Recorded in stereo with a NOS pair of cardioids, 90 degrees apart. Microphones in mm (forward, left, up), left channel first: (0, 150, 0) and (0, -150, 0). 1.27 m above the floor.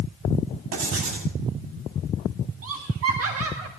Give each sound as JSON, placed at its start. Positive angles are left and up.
{"t": 0.7, "sound": "writing", "azimuth_deg": -65, "distance_m": 6.5}
{"t": 2.6, "sound": "laughter", "azimuth_deg": -55, "distance_m": 1.5}